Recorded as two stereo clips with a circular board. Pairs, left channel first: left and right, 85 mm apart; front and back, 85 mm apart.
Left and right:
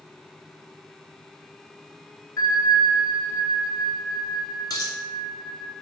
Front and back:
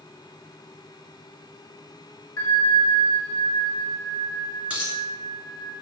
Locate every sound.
2.4 s a bell: 45° left, 1.0 m
4.7 s a dropped coin: 110° left, 1.0 m